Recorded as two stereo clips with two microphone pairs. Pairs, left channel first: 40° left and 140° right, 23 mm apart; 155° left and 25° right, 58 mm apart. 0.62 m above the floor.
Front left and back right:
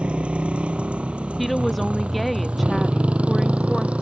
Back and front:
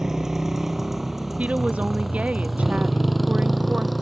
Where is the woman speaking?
35° right.